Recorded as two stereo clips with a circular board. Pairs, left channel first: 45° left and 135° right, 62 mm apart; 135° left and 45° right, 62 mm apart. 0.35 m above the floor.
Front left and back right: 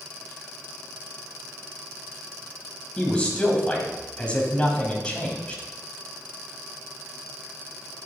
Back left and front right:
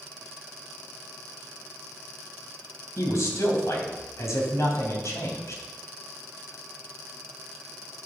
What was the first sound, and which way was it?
A man speaking, 115° left.